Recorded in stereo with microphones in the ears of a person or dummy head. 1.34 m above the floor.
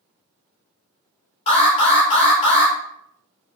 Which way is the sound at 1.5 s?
40° left (ahead or behind).